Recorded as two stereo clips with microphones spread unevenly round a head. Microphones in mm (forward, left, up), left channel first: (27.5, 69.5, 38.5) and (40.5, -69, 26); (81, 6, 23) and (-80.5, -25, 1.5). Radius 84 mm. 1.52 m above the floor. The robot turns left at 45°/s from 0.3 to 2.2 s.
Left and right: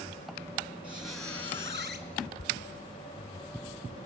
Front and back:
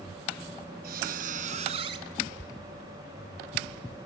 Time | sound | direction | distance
0.8 | a squeak | 170° right | 1.8 m